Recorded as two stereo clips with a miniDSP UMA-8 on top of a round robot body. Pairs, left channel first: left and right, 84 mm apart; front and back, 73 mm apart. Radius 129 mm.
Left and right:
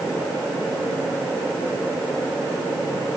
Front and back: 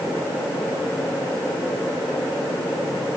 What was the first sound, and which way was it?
Only background noise.